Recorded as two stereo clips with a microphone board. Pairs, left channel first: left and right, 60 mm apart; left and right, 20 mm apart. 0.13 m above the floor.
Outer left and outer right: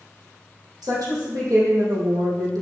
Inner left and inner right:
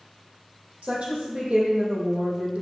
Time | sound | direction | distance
0.8 | a woman speaking | 75° right (ahead or behind) | 4 m